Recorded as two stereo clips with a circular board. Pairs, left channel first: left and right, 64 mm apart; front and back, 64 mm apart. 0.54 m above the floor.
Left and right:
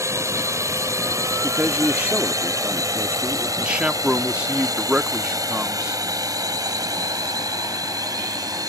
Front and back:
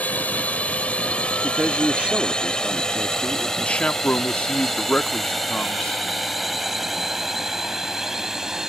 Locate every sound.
0.0 s a drone: 65° right; by 8.7 s 100° right
1.4 s a man speaking: 130° right
3.6 s a man speaking: 40° right